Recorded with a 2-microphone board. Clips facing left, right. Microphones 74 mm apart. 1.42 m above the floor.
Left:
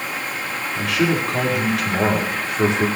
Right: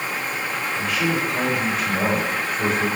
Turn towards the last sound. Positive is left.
turn(degrees=80)